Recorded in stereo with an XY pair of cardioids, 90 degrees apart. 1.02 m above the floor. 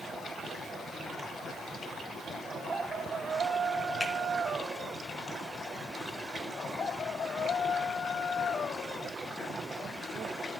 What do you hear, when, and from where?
4.0 s a finger snap: 25° left, 3.5 m